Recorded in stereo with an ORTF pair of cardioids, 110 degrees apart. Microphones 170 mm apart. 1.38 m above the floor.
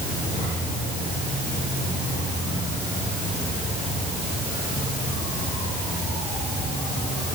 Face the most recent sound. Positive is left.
No sound to turn to.